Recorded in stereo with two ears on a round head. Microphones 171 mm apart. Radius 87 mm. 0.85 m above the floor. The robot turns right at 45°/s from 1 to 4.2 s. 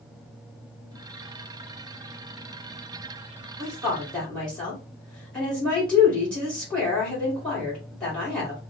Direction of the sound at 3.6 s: 20° right (ahead or behind).